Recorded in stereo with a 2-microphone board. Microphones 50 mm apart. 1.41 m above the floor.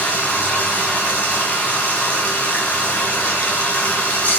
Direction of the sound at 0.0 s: 30° left (ahead or behind).